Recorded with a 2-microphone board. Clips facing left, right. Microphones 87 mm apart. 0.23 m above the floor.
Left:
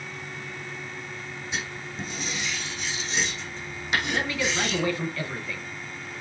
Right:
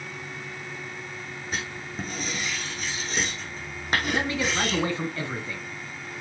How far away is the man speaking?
About 2 m.